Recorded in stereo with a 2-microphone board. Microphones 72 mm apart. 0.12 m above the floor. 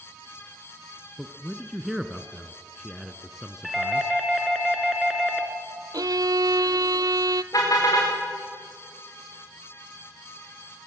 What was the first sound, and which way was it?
A man speaking, 5° right (ahead or behind).